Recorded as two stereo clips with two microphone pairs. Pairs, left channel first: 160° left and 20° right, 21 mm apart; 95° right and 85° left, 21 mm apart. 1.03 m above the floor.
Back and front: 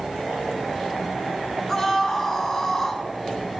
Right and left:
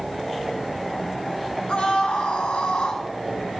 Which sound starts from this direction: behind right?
A scream, at 1.7 s.